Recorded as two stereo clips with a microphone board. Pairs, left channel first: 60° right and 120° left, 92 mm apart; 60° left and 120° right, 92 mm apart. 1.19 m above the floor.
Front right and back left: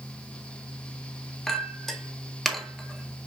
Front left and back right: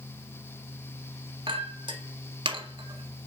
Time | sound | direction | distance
1.5 | a clink | 150° right | 1.7 m